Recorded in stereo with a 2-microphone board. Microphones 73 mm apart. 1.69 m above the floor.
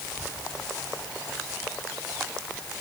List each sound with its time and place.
Only background noise.